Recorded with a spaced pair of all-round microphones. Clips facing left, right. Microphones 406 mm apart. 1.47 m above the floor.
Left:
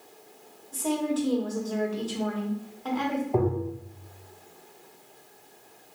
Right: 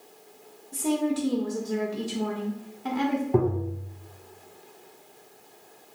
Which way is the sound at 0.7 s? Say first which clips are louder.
Right 2 dB; 40° right (ahead or behind).